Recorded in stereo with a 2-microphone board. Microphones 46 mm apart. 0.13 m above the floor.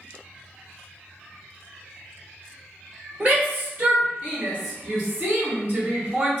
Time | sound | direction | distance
3.2 | a shout | 30° right (ahead or behind) | 1.6 m